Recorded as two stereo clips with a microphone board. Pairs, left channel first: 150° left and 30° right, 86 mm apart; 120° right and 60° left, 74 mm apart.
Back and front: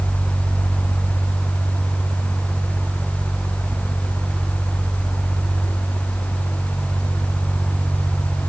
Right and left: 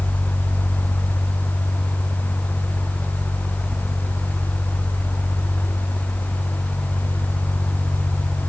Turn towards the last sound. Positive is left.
No sound to turn to.